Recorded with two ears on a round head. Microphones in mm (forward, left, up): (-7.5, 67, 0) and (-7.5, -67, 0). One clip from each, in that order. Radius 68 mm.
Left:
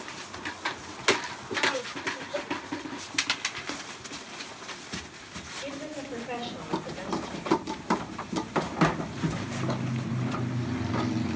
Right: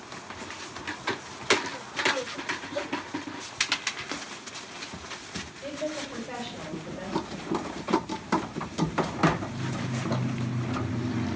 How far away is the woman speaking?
About 3.5 m.